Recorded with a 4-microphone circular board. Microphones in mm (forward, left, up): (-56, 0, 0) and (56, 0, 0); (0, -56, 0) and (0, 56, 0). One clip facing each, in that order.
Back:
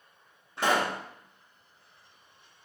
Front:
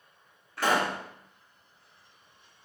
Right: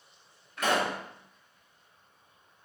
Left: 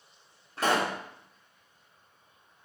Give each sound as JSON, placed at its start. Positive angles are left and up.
{"t": 0.6, "sound": "a pop", "azimuth_deg": 125, "distance_m": 0.9}